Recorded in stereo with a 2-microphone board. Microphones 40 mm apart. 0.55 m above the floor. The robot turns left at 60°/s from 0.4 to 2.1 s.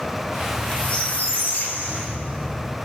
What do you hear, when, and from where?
0.4 s a squeak: 165° left, 0.9 m; by 2.7 s 65° left, 0.9 m